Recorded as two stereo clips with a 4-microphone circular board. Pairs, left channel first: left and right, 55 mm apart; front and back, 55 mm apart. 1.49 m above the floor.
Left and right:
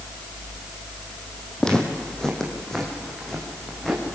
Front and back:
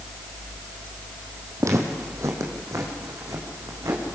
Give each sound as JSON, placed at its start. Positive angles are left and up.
{"t": 1.6, "sound": "footsteps", "azimuth_deg": 165, "distance_m": 4.0}